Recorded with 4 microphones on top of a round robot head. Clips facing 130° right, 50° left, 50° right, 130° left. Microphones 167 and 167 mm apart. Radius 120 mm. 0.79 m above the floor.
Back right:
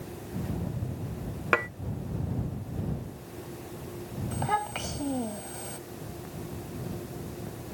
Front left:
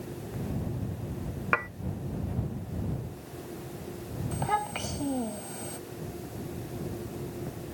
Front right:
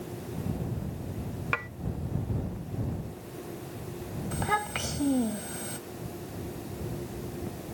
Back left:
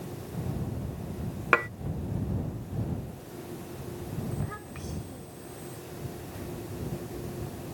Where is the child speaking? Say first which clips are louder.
Even, front right 6 dB; 40° right.